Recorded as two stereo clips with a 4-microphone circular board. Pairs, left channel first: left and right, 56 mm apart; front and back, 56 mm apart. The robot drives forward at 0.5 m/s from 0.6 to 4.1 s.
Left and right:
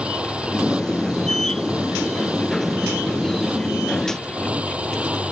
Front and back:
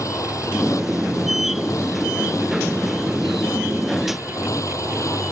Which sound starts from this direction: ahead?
A motorcycle, at 0.0 s.